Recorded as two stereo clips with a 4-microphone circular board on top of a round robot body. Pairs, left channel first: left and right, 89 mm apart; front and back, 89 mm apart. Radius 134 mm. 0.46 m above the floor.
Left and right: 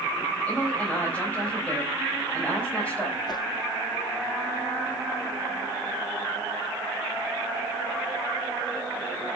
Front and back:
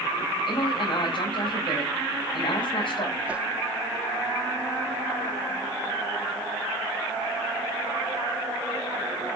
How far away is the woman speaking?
About 4 m.